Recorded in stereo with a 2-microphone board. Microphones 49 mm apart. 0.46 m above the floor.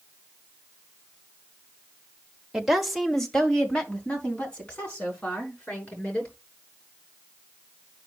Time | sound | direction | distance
2.5 | a woman speaking | 10° right (ahead or behind) | 1.3 m